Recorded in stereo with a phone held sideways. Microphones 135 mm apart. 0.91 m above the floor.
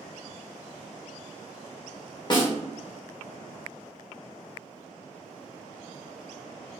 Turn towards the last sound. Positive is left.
turn(degrees=30)  # may be behind; listen again after turning